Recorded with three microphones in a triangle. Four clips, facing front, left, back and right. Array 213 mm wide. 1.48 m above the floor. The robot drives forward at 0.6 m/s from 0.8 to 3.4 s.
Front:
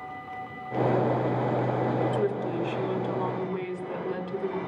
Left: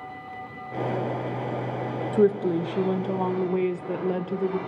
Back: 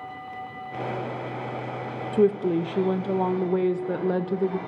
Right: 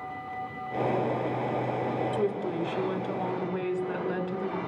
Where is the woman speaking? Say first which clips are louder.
Left 7 dB, back 6 dB; 130° left, 0.7 m; by 4.6 s 160° left, 1.3 m.